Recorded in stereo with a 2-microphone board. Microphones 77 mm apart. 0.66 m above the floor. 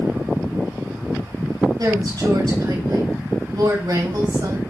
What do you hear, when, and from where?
1.8 s a woman speaking: 60° right (ahead or behind), 4 m